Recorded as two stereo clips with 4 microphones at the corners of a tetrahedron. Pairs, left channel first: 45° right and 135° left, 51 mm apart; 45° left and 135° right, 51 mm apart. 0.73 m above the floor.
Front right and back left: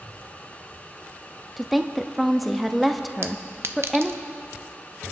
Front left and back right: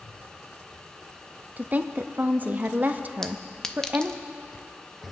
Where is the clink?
120° left, 0.7 m.